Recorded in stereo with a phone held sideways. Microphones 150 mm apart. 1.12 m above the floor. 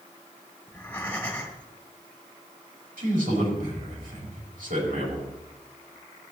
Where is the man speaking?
85° right, 5 m.